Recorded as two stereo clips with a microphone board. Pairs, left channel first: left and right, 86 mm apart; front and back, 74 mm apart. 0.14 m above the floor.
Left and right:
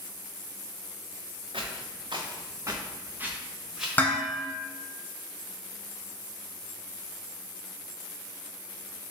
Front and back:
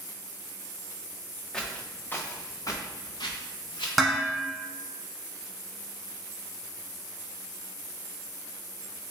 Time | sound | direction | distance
1.5 | footsteps | 85° right | 0.8 m
4.0 | dishes clattering | 90° left | 0.7 m